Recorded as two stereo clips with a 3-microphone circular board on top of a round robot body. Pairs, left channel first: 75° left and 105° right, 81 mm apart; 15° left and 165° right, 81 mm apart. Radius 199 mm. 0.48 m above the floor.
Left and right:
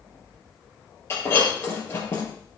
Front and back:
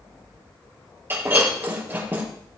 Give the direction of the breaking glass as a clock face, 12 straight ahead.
8 o'clock.